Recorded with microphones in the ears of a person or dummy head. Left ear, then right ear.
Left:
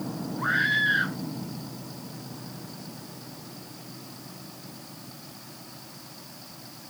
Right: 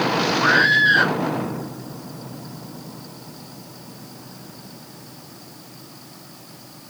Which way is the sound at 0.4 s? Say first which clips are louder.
Right 7 dB; 30° right (ahead or behind).